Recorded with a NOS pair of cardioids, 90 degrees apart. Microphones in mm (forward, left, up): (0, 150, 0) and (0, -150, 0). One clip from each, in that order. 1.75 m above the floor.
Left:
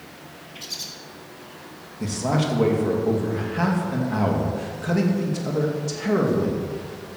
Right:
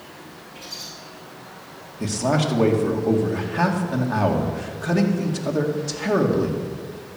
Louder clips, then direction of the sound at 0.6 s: Left 3 dB; 55° left.